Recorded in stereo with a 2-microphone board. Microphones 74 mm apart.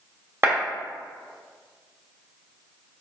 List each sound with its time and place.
0.4 s a clap: 30° right (ahead or behind), 2 m